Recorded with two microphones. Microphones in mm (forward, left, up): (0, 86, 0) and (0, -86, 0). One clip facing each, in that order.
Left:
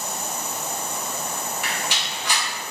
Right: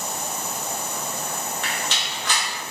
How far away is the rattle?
About 1.2 m.